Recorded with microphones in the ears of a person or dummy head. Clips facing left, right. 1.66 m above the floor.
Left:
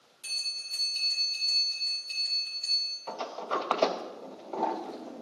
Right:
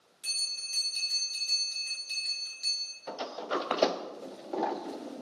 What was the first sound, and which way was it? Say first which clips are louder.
A bell: even; 20° right (ahead or behind).